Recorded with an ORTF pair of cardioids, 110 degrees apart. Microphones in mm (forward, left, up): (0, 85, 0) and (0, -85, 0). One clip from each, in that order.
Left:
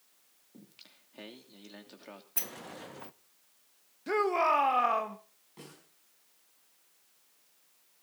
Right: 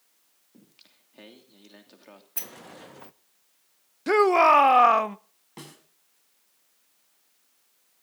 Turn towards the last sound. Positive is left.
turn(degrees=-65)